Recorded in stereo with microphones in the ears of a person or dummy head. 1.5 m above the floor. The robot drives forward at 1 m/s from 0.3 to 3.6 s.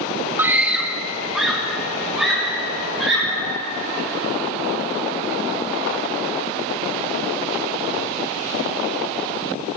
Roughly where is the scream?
Centre.